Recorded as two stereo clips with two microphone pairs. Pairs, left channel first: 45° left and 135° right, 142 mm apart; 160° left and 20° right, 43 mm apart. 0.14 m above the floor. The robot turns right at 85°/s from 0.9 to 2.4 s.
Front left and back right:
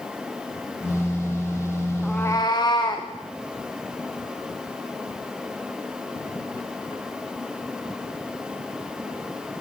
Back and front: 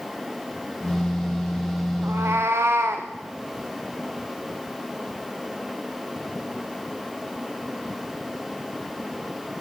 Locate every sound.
2.0 s a cat meowing: 50° right, 1.8 m; by 3.1 s 15° right, 1.8 m